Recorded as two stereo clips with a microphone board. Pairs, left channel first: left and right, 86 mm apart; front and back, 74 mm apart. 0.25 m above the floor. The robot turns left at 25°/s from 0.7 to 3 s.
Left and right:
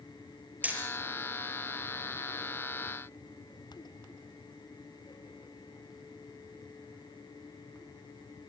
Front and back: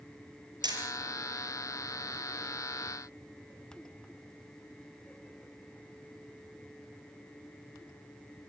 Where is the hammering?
160° right, 5.5 m; by 0.8 s 165° right, 5.5 m.